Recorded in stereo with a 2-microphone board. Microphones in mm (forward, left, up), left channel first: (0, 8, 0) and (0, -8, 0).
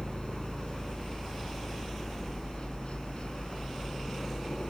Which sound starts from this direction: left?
A helicopter, at 0.0 s.